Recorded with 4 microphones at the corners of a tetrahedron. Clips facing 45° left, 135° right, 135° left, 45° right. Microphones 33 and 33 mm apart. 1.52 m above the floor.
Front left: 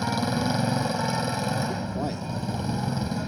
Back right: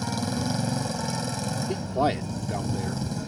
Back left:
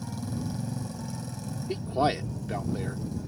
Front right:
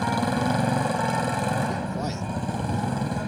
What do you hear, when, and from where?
0.0 s a motorcycle: 25° right
1.7 s a man speaking: 170° right